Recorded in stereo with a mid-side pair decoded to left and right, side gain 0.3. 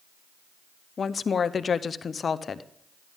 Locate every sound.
1.0 s a woman speaking: 60° left, 0.7 m